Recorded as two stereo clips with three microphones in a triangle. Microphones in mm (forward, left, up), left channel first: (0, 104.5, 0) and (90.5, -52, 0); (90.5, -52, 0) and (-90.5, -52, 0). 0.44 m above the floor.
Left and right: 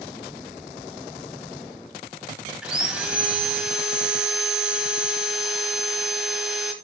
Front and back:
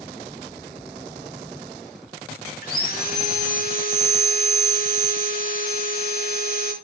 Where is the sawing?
25° left, 2 m.